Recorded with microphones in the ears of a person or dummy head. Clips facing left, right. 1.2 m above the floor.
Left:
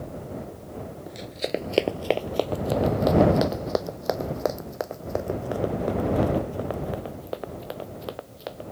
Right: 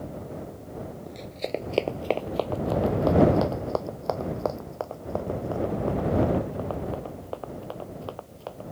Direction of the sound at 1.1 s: 5° left (ahead or behind).